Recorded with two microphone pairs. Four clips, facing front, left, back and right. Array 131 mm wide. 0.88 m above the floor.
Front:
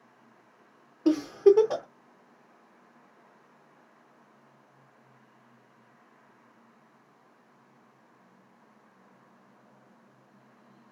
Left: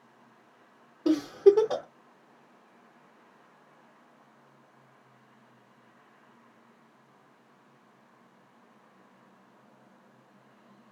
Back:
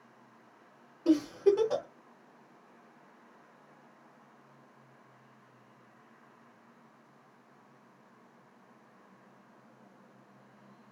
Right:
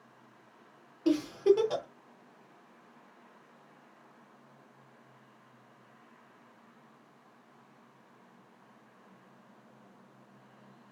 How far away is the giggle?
About 0.9 m.